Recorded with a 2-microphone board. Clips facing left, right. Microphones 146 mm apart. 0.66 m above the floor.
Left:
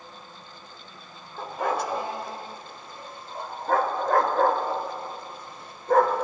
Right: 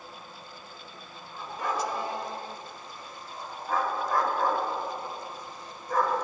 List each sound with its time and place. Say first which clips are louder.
1.4 s a dog barking: left 4 dB; 60° left (ahead or behind), 0.8 m